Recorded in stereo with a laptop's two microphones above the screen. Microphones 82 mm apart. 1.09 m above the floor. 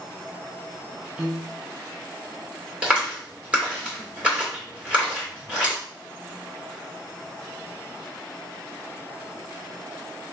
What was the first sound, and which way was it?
A piano, 15° right (ahead or behind).